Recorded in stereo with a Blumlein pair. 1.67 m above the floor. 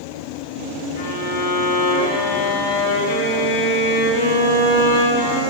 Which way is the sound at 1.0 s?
55° left.